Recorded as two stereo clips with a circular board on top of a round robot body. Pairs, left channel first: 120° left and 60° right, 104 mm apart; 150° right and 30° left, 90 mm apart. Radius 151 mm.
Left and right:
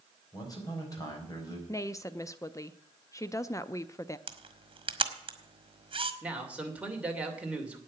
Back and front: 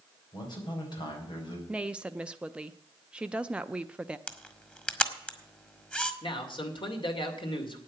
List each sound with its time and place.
0.3 s a man speaking: 175° left, 4.5 m
1.7 s a woman speaking: 100° left, 0.7 m
4.3 s a camera shutter: 75° right, 1.7 m
6.2 s a man speaking: 135° right, 2.5 m